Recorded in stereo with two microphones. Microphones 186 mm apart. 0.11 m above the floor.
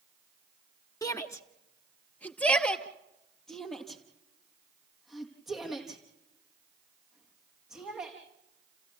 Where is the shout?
15° left (ahead or behind), 1.2 m; by 8.2 s 5° right (ahead or behind), 5.5 m.